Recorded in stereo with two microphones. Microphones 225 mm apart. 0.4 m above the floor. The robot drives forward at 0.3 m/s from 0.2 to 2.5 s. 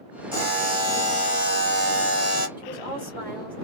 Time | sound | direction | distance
0.3 | a buzzer | 25° right (ahead or behind) | 1.5 m
2.6 | a woman speaking | 10° right (ahead or behind) | 1.4 m